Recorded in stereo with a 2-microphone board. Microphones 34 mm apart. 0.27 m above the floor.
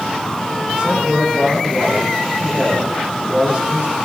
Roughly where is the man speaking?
Right.